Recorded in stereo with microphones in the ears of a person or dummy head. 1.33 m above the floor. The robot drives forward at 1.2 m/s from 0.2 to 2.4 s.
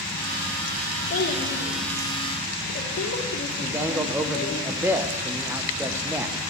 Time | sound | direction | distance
1.1 | a child speaking | 60° left (ahead or behind) | 2.5 m
3.6 | a man speaking | 15° right (ahead or behind) | 0.8 m